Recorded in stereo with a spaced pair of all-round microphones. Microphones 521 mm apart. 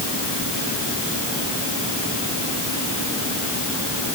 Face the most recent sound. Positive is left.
No sound to turn to.